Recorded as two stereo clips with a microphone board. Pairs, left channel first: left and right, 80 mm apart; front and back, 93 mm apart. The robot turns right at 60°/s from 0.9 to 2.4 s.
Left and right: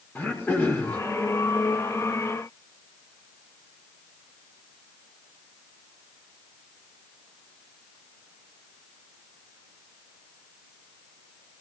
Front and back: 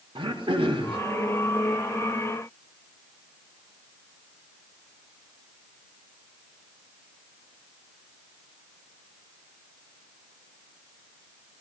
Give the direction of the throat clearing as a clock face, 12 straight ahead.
7 o'clock.